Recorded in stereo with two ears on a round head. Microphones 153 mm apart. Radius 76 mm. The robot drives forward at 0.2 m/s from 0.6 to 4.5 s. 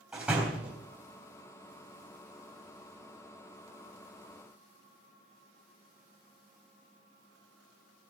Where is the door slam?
5° right (ahead or behind), 3 m.